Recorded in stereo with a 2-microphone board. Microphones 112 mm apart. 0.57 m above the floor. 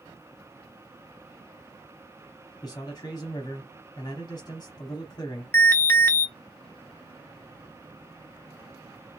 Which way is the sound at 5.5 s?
20° left (ahead or behind).